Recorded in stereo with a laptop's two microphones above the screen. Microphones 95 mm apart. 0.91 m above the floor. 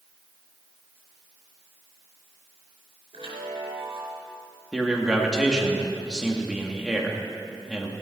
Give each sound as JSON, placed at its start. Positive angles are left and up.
{"t": 3.1, "sound": "a chime", "side_deg": -85, "distance_m": 5.0}
{"t": 4.7, "sound": "a man speaking", "side_deg": -5, "distance_m": 2.0}